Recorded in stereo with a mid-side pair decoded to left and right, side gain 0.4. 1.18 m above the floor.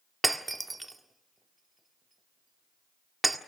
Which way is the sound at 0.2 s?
20° right.